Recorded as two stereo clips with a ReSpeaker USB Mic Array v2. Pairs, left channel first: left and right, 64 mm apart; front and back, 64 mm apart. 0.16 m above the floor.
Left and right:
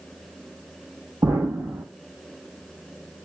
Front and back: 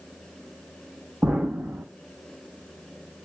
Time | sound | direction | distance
1.2 | an explosion | 110° right | 4.5 m